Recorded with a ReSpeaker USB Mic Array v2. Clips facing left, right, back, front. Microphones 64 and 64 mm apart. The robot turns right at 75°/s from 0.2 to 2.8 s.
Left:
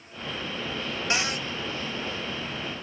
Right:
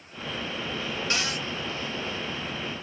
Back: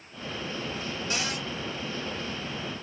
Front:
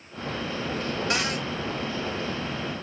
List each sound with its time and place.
1.1 s a cupboard door: 20° left, 1.0 m; by 1.4 s 50° left, 1.0 m